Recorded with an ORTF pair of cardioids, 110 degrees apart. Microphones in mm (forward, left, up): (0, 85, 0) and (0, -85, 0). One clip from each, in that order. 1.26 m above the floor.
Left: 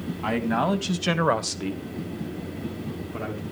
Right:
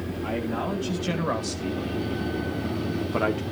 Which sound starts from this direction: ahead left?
A man speaking, at 0.2 s.